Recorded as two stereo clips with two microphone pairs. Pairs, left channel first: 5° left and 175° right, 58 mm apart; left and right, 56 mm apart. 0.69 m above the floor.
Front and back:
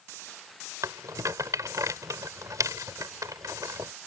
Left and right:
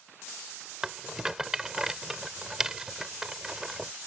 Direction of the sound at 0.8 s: 170° right.